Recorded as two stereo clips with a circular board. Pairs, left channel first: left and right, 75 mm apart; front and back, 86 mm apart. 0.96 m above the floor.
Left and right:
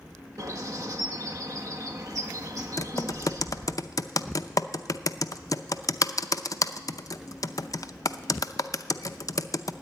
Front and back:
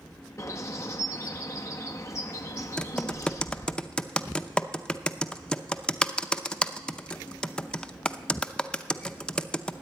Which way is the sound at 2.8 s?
75° left.